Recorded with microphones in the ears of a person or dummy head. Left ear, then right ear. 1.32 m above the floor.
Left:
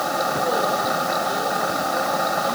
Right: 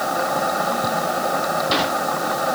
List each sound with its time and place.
Only background noise.